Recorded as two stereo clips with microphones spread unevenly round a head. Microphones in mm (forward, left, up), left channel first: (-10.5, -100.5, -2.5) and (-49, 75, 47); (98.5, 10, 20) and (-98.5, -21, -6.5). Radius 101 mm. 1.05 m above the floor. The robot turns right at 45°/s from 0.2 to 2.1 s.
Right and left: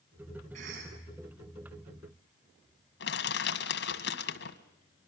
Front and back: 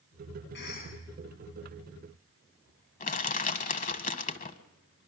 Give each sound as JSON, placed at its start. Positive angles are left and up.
{"t": 0.5, "sound": "a cough", "azimuth_deg": 45, "distance_m": 8.5}
{"t": 3.0, "sound": "crushing", "azimuth_deg": -35, "distance_m": 1.7}